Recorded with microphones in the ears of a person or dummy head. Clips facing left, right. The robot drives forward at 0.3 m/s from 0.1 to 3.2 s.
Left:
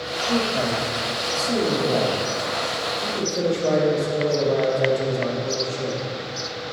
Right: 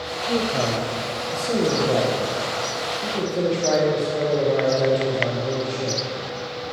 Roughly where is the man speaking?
Right.